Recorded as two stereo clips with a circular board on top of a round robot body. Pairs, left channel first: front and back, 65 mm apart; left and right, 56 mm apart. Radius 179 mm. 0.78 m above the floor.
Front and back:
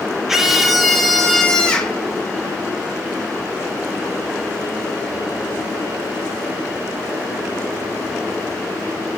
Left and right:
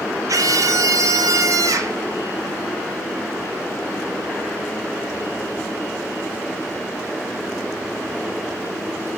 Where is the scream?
95° right, 3.5 m; by 2.0 s 75° right, 4.5 m.